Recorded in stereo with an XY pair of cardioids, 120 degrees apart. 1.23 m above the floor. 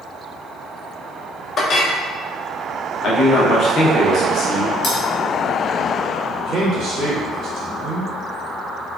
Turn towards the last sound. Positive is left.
turn(degrees=-65)